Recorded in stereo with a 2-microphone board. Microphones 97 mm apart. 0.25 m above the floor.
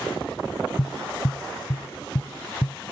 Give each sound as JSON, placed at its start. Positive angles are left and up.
{"t": 0.8, "sound": "tapping", "side_deg": 65}